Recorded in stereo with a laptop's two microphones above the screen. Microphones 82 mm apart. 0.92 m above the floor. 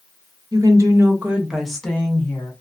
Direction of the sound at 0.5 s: 50° right (ahead or behind).